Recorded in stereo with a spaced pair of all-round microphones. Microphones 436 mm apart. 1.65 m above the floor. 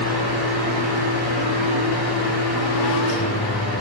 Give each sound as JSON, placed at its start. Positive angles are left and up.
{"t": 0.0, "sound": "a fan", "side_deg": 75, "distance_m": 5.5}